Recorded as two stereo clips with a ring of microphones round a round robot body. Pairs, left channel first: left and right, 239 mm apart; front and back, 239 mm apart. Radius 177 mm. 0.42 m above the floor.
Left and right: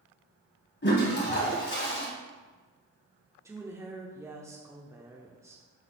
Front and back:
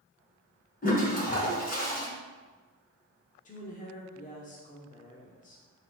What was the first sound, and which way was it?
A toilet flushing, 50° left.